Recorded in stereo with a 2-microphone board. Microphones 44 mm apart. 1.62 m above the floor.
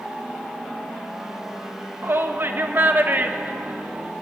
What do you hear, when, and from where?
2.0 s a shout: 60° right (ahead or behind), 2.0 m; by 4.1 s 30° right (ahead or behind), 1.6 m